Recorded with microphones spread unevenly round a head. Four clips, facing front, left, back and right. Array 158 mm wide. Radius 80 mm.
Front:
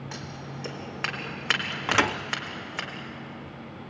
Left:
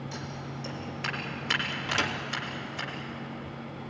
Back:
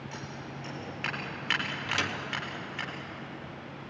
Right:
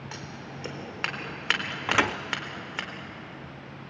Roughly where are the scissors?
Ahead right.